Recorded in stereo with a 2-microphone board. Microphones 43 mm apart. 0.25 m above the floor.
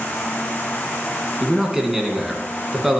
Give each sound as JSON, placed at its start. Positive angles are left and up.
{"t": 1.4, "sound": "a man speaking", "side_deg": -5, "distance_m": 2.0}